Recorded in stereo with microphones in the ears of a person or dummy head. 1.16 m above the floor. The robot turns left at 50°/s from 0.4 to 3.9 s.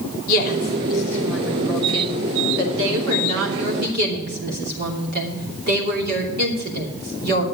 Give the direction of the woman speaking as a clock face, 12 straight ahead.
10 o'clock.